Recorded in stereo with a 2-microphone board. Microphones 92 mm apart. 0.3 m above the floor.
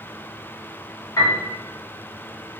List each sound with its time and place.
1.2 s a piano: 45° left (ahead or behind), 1.5 m